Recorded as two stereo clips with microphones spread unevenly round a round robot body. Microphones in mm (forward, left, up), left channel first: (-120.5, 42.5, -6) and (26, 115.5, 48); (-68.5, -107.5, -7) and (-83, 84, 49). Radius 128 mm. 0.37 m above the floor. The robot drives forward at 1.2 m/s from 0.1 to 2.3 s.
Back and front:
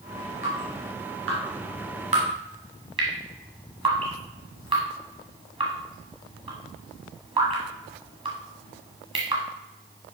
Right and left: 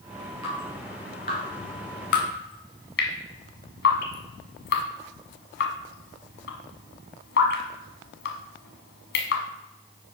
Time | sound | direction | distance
0.4 | dripping | 15° right | 3 m